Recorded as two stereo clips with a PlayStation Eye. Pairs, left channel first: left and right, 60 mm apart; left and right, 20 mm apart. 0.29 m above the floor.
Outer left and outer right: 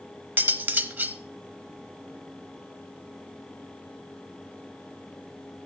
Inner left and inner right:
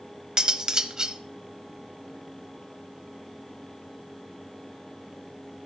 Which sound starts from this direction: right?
Cutlery clinking, at 0.4 s.